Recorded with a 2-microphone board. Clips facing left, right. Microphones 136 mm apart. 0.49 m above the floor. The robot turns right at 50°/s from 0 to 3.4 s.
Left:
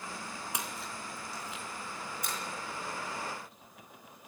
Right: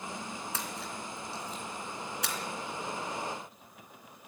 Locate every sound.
0.5 s a splash: 15° left (ahead or behind), 3 m; by 2.4 s 75° right (ahead or behind), 3 m